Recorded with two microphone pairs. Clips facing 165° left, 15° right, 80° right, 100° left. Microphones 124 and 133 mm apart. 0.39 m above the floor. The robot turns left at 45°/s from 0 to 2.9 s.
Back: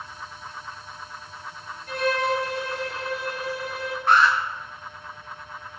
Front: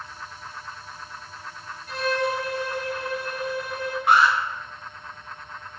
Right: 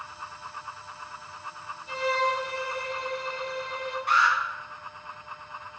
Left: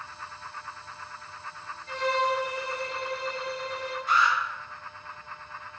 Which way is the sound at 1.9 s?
155° right.